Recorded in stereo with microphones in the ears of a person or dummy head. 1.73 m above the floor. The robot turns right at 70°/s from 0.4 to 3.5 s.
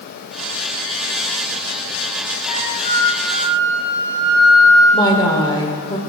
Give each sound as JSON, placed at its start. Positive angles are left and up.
{"t": 2.5, "sound": "a flute", "azimuth_deg": 130, "distance_m": 1.4}
{"t": 4.9, "sound": "a woman speaking", "side_deg": 25, "distance_m": 1.1}